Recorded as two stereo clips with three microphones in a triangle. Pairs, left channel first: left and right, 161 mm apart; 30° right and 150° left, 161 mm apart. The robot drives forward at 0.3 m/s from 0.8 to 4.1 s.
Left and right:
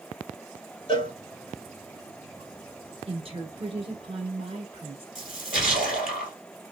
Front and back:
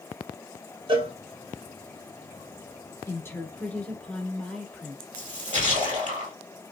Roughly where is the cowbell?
Behind left.